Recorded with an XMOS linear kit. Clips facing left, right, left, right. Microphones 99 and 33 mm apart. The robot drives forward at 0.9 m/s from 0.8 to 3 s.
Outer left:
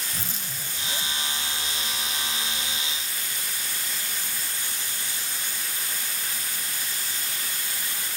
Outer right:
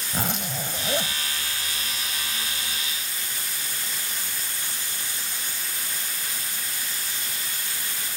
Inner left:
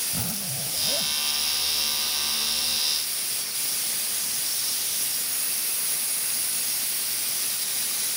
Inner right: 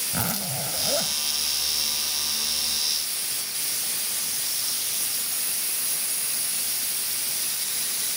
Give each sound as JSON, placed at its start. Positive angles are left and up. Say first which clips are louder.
{"t": 0.1, "sound": "a zipper", "louder": "outer right 9 dB, inner right 4 dB", "side_deg": -70}